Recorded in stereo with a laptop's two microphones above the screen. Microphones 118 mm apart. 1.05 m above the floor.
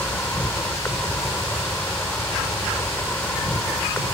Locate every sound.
0.0 s an insect: 15° left (ahead or behind)